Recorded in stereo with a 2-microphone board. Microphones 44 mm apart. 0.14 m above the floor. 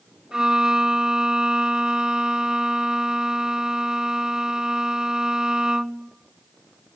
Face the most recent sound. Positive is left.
turn(degrees=-20)  # may be behind; listen again after turning